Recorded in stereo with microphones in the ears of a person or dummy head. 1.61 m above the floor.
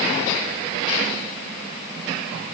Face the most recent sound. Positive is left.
No sound to turn to.